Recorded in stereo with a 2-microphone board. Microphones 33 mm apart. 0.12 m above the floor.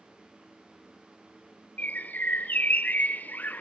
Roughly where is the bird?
Left.